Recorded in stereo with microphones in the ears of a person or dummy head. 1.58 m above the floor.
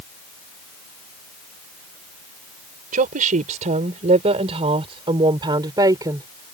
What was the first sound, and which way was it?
A woman speaking, 45° right (ahead or behind).